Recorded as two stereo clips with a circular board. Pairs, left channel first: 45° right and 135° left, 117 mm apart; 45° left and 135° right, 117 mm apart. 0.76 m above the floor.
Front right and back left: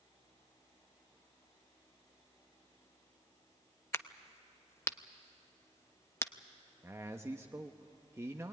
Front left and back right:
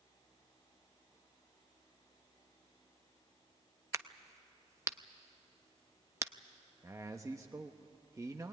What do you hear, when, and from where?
3.9 s a crack: 95° right, 0.6 m
6.8 s a man speaking: 175° right, 0.7 m